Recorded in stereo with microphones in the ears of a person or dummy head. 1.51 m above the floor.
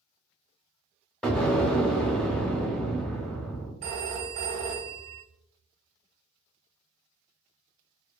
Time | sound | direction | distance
1.2 | an explosion | 5° left (ahead or behind) | 0.7 m
3.8 | a phone ringing | 50° right (ahead or behind) | 0.7 m